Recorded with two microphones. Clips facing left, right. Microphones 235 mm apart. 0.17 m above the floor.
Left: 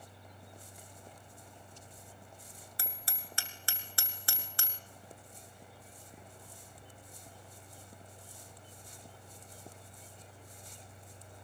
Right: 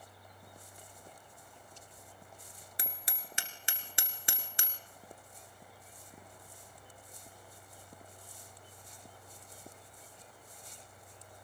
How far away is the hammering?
About 1.6 m.